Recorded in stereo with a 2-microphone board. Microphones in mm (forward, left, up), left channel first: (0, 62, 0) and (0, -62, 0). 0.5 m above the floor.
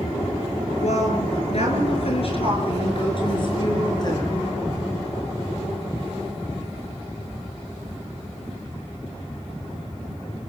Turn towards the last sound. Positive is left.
turn(degrees=30)  # may be behind; listen again after turning